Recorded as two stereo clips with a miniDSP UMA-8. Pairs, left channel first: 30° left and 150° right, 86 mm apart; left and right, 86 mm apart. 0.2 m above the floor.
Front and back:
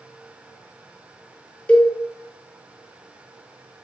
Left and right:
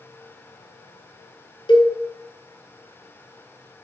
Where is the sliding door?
No sliding door in this recording.